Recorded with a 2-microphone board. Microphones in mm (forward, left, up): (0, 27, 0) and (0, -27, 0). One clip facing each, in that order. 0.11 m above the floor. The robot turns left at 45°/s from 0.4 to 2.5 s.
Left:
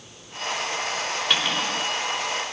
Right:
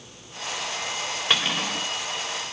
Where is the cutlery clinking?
10° right (ahead or behind), 7 m; by 1.9 s 35° right (ahead or behind), 7 m.